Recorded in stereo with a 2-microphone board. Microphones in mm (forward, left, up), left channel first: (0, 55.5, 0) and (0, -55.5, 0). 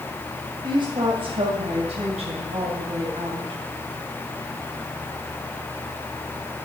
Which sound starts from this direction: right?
A woman speaking, at 0.6 s.